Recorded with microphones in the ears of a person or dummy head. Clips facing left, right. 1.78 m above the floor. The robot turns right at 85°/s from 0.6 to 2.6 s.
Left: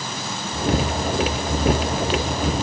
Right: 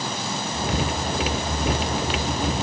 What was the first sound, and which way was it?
Only background noise.